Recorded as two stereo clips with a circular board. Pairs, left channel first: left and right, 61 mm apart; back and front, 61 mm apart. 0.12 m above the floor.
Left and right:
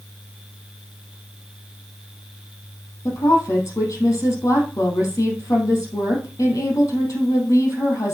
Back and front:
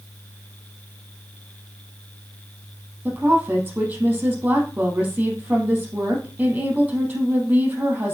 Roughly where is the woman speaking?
Ahead left.